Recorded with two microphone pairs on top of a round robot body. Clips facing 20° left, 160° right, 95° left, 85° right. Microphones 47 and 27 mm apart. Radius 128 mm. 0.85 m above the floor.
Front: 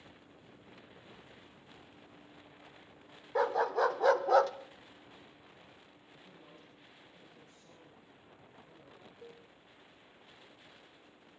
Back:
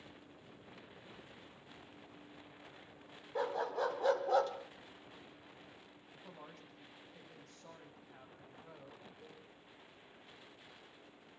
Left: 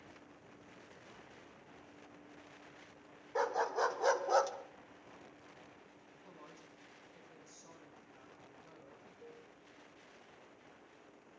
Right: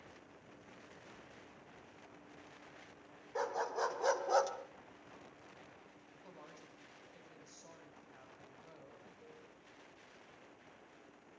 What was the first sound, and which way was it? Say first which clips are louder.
A dog barking: front 7 dB, left 3 dB; 25° left.